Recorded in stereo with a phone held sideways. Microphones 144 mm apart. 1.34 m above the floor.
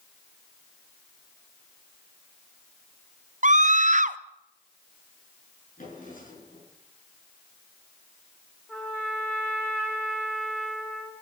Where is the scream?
60° right (ahead or behind), 0.8 m.